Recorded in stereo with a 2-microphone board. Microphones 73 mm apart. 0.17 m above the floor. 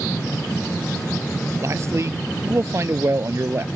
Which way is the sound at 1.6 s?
40° right (ahead or behind).